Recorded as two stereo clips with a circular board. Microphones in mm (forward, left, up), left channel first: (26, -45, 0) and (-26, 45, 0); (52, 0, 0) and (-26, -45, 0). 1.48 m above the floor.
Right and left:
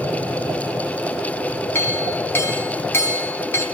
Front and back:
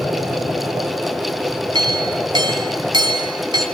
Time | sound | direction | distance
1.8 | a clink | 125° right | 3.5 m